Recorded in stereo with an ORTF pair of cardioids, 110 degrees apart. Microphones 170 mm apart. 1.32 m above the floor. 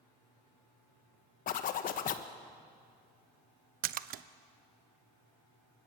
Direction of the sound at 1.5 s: 55° left.